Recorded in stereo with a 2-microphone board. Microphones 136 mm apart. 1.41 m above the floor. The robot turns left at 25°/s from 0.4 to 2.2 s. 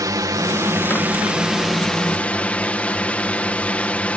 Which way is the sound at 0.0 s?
145° right.